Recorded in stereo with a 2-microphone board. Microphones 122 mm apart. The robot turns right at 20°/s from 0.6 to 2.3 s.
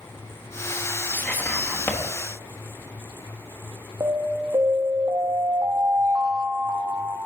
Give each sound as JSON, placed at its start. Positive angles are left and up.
{"t": 1.1, "sound": "whispering", "side_deg": 15, "distance_m": 1.2}
{"t": 4.0, "sound": "an alarm", "side_deg": -30, "distance_m": 0.7}